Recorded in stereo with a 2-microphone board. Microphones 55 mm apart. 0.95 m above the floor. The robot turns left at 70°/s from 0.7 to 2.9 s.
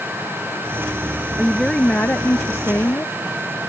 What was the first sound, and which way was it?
A woman speaking, straight behind.